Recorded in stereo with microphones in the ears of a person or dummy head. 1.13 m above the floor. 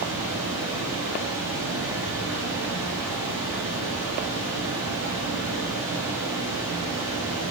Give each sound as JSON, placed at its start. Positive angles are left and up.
{"t": 0.0, "sound": "running water", "side_deg": -65, "distance_m": 1.0}